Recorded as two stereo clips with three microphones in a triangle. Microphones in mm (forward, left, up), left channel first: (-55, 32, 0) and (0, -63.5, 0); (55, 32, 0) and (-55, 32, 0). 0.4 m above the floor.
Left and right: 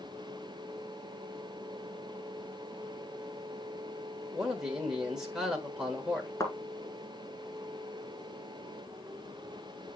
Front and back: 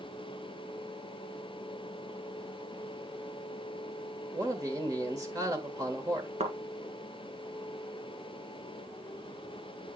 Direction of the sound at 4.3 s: 145° right.